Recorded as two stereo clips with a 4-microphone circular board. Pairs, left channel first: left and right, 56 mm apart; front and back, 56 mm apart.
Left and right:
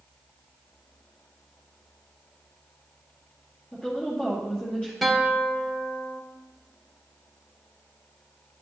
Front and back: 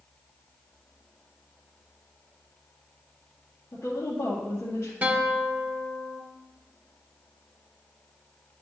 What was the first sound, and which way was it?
A woman speaking, 25° left.